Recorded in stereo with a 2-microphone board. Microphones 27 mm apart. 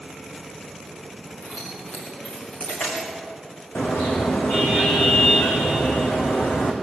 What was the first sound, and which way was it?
Keys jangling, 65° left (ahead or behind).